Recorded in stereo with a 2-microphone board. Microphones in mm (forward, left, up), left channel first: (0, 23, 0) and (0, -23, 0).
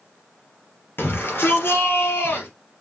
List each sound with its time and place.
1.0 s a shout: 55° left (ahead or behind), 2.5 m